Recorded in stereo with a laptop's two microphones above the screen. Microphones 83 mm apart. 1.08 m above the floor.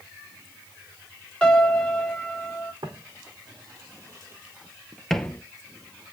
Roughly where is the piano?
Centre.